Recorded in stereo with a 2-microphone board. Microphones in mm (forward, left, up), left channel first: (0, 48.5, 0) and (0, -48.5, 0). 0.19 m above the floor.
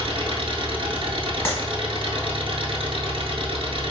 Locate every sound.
0.0 s an engine running: 70° right (ahead or behind), 0.7 m
1.4 s a clap: 25° left (ahead or behind), 1.3 m